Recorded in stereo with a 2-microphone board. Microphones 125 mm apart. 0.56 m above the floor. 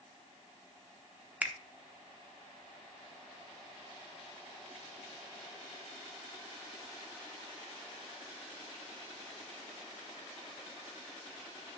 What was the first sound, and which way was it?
A finger snap, 10° right (ahead or behind).